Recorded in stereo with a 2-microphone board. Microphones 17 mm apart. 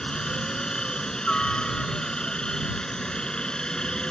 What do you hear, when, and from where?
0.0 s a helicopter: 55° left (ahead or behind); by 4.1 s 50° left (ahead or behind)